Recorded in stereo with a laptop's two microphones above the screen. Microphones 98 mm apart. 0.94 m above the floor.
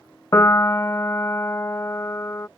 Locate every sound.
0.3 s a piano: 30° left (ahead or behind)